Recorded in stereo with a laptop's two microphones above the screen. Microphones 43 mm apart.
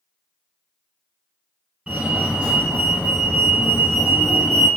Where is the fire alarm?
30° right (ahead or behind), 1.5 m.